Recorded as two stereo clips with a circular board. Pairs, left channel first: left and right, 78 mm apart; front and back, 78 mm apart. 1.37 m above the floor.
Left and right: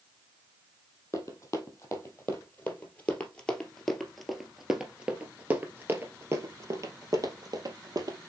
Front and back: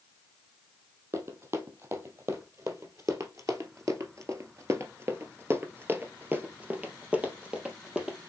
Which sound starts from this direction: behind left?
Running footsteps, at 1.1 s.